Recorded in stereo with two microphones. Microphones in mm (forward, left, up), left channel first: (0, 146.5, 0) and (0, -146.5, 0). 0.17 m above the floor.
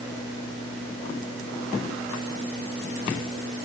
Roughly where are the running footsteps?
No running footsteps in this recording.